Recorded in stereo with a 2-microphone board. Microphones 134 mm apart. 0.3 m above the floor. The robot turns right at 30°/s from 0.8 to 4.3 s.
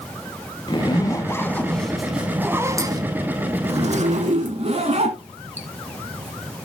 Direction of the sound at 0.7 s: 145° left.